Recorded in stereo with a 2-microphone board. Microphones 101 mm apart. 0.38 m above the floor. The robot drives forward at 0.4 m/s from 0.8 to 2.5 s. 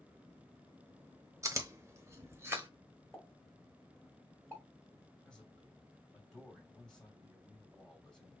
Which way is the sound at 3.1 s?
15° left (ahead or behind).